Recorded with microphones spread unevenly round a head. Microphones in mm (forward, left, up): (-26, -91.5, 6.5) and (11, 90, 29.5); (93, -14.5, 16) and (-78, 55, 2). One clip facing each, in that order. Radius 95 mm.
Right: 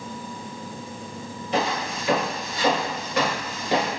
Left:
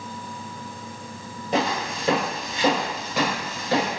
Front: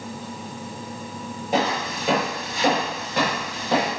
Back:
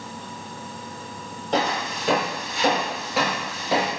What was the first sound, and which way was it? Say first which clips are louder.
Footsteps: left 1 dB, front 1 dB; 55° left.